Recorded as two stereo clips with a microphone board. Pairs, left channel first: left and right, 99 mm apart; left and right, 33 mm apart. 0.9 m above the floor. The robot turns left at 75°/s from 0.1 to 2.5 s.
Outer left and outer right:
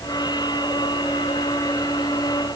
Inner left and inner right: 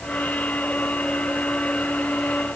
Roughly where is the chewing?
I don't hear chewing.